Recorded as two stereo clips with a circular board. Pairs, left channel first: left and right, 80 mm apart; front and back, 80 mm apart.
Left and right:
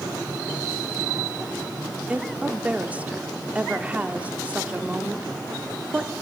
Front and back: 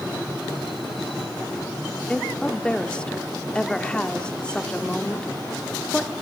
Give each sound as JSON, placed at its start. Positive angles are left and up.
{"t": 2.1, "sound": "a woman speaking", "azimuth_deg": -55, "distance_m": 0.9}